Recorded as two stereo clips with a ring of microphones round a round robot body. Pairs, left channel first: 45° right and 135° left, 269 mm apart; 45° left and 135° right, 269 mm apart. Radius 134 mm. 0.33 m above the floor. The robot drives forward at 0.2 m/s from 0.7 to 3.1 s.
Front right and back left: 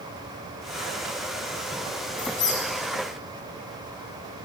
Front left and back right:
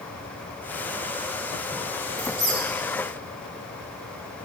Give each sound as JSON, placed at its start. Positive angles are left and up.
{"t": 2.2, "sound": "a squeak", "azimuth_deg": -120, "distance_m": 2.0}